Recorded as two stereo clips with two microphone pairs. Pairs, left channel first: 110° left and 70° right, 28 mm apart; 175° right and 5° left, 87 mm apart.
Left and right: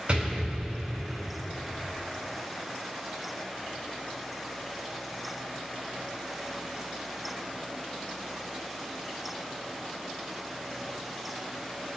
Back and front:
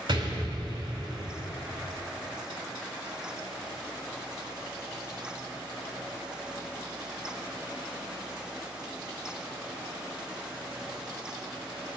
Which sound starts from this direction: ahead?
An explosion, at 0.1 s.